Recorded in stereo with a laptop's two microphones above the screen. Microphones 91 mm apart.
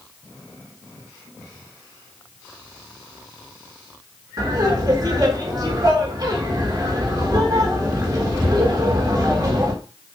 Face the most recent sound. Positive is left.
turn(degrees=-45)  # may be behind; listen again after turning